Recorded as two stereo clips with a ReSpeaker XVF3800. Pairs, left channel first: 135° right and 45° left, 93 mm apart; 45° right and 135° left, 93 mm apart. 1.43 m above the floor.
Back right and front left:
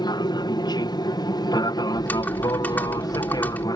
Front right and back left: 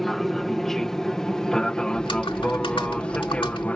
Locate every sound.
0.0 s an aircraft: 130° right; by 3.8 s 115° right
1.9 s typing on a keyboard: 65° right